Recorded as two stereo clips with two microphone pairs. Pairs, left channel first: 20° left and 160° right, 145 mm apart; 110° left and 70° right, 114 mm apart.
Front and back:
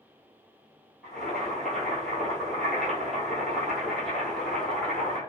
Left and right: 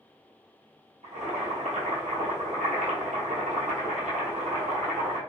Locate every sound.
1.0 s boiling: 65° right, 1.2 m